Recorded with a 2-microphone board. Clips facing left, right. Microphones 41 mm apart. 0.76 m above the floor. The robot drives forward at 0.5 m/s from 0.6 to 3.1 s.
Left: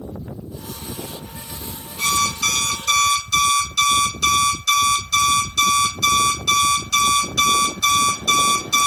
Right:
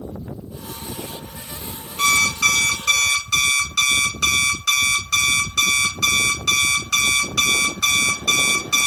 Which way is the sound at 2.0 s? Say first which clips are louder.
Right 3 dB; 75° right (ahead or behind).